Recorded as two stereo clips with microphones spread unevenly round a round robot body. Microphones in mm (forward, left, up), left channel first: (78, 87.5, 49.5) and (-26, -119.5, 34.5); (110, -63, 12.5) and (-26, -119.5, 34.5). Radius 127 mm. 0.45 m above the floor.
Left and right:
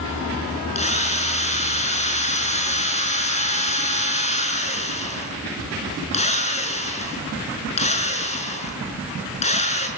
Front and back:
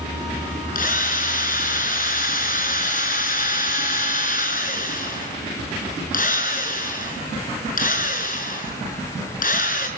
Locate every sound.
0.8 s a drill: straight ahead, 6 m